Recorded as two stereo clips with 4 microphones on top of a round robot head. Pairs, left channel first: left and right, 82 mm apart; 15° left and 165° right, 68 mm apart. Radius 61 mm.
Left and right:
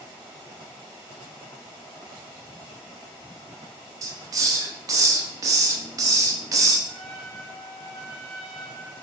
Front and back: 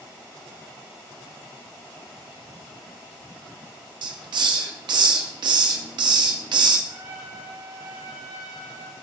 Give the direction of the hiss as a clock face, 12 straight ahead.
5 o'clock.